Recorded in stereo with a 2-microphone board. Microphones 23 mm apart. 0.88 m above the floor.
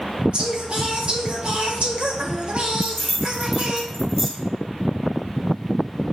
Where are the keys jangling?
Centre (ahead or behind), 1.6 m.